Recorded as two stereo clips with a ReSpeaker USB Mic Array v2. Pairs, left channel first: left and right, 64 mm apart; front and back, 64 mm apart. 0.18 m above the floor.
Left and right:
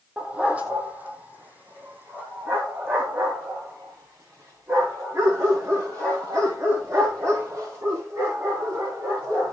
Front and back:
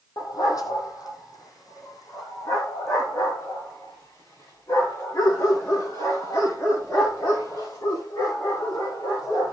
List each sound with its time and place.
0.2 s a dog barking: 15° right, 2.5 m; by 9.5 s 40° right, 12 m